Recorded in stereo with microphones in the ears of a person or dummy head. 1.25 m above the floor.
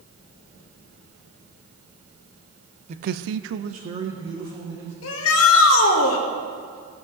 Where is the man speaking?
45° right (ahead or behind), 0.7 m; by 4.9 s 15° right (ahead or behind), 1.8 m.